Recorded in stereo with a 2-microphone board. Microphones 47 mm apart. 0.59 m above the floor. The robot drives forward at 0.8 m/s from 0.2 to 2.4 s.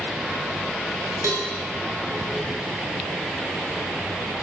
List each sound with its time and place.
1.2 s a cowbell: 75° right (ahead or behind), 7.5 m